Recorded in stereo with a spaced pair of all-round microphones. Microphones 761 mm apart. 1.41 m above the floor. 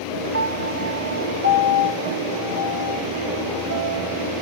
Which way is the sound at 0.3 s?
15° right (ahead or behind).